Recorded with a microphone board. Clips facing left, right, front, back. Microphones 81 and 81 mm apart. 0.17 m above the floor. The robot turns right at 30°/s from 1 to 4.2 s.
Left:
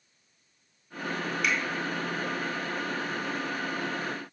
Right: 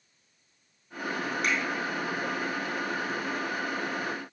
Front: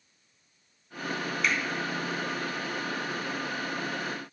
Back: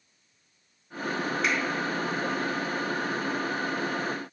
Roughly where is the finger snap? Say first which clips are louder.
Even, even; behind right.